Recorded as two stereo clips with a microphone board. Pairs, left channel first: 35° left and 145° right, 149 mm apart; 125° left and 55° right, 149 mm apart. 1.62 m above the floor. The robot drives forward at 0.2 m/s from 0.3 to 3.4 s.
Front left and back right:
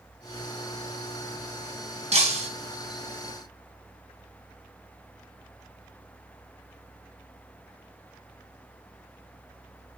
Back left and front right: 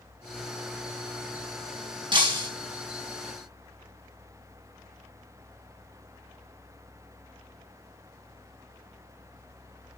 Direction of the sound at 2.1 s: 110° right.